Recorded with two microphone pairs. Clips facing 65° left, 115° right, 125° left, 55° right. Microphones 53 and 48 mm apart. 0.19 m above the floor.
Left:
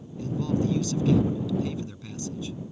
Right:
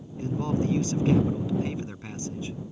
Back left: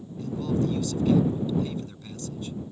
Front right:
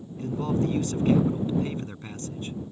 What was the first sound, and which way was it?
A man speaking, 80° right.